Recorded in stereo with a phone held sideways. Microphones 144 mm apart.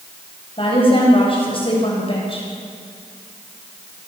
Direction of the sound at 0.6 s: 35° left (ahead or behind).